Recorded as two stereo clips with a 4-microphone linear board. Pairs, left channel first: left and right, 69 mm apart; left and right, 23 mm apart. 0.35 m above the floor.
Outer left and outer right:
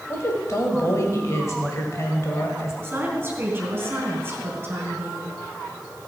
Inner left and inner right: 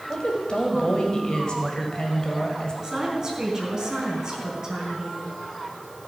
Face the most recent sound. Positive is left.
turn(degrees=-30)  # may be behind; listen again after turning